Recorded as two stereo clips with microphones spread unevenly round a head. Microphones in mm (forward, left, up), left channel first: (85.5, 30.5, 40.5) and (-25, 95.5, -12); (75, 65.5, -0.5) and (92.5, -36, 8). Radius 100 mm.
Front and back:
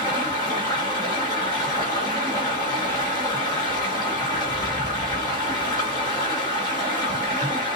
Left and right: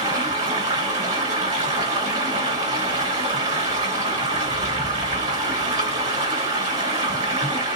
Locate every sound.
0.0 s running water: 100° right, 2.5 m